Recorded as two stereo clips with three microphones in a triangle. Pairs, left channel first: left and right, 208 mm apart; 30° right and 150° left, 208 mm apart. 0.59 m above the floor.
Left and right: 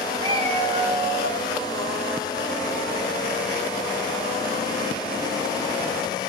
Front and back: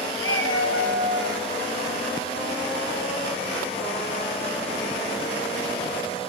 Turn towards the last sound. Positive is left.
turn(degrees=-40)